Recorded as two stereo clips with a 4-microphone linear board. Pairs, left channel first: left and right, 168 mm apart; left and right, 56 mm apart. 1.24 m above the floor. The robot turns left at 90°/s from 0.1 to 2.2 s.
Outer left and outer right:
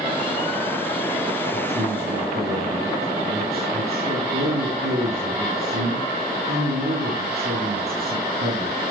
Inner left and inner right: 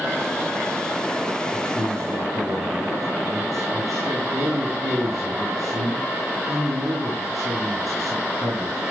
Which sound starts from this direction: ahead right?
A man speaking, at 1.5 s.